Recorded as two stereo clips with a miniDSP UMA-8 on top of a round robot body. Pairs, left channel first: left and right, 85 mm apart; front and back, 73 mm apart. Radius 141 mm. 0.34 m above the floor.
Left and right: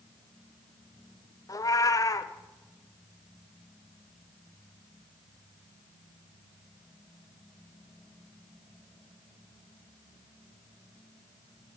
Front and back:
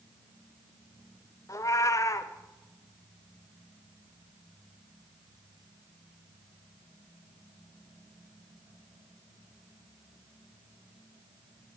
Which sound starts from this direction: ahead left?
A cat meowing, at 1.5 s.